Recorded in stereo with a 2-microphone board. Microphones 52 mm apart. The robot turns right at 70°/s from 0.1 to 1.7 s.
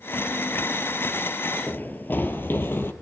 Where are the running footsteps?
35° left (ahead or behind), 1.3 m; by 2.9 s 45° left (ahead or behind), 1.7 m.